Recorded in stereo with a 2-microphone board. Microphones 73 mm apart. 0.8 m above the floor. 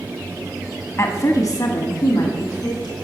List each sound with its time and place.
1.0 s a woman speaking: 40° left (ahead or behind), 1.2 m; by 3.0 s 70° left (ahead or behind), 2.5 m